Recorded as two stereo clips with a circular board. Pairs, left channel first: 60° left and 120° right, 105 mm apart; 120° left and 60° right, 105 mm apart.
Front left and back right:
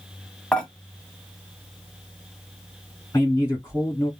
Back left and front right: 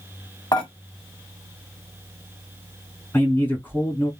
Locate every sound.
0.5 s dishes clattering: 135° left, 1.0 m
3.1 s a man speaking: 80° left, 1.6 m